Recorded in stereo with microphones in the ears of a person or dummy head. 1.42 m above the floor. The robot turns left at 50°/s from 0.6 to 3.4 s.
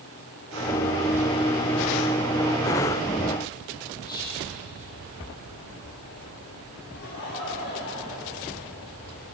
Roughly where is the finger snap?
I don't hear a finger snap.